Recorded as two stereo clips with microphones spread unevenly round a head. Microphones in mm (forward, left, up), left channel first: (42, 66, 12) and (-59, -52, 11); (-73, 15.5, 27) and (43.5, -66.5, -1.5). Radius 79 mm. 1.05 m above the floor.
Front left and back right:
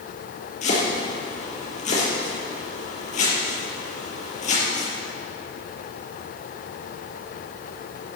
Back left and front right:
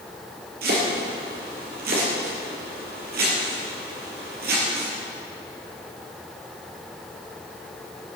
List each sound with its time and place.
0.6 s chopping: straight ahead, 5 m